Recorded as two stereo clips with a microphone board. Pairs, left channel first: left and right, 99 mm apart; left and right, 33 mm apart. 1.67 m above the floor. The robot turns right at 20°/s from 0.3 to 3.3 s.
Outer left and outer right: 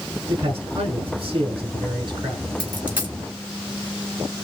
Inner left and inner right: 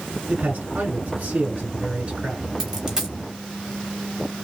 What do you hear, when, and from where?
0.3 s a man speaking: 90° right, 2 m; by 2.5 s 45° right, 2 m
2.6 s a dropped coin: 15° right (ahead or behind), 1.7 m; by 3.1 s 20° right (ahead or behind), 1.7 m